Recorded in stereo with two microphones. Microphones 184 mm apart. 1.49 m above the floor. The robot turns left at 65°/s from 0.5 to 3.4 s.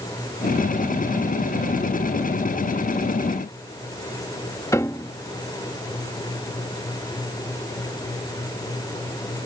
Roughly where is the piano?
Centre.